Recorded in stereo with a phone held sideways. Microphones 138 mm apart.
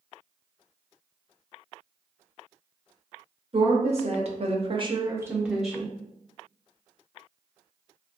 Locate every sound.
3.5 s a woman speaking: 45° right (ahead or behind), 0.9 m; by 6.0 s 5° left (ahead or behind), 0.8 m